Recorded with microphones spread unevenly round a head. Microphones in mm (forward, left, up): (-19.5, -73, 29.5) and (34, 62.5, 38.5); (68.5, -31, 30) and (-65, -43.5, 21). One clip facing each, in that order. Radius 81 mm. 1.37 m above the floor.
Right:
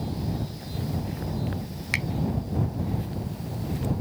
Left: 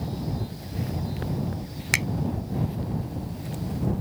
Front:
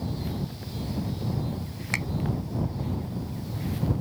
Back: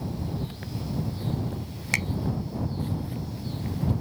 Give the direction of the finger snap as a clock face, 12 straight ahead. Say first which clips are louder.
Left 3 dB, back 1 dB; 8 o'clock.